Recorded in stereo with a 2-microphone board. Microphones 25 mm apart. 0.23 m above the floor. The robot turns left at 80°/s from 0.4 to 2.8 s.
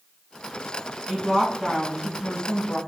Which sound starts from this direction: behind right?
A woman speaking, at 1.1 s.